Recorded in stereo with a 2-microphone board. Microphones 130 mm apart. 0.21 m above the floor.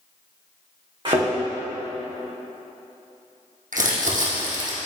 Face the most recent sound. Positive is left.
turn(degrees=-80)